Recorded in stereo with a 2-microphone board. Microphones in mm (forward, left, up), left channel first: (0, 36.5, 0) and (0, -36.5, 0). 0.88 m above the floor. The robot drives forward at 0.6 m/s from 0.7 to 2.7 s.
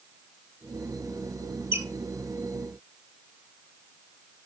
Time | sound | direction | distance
1.7 | a squeak | 30° right (ahead or behind) | 0.9 m